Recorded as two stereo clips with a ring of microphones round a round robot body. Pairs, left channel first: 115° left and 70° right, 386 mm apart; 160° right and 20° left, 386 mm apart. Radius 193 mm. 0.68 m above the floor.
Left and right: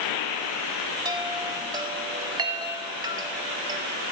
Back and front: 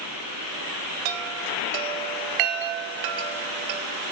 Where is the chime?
10° left, 0.8 m.